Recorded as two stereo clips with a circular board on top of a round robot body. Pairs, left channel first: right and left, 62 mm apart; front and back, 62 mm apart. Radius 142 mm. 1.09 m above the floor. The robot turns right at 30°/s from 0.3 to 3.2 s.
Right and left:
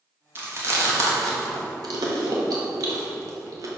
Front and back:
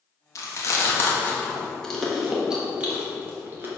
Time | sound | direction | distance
0.3 | chewing | 35° left | 1.5 m